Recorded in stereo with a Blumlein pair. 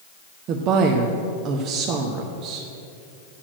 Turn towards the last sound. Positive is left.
turn(degrees=-35)